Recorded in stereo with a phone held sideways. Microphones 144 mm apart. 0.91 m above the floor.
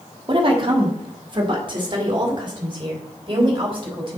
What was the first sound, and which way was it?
A woman speaking, 40° right (ahead or behind).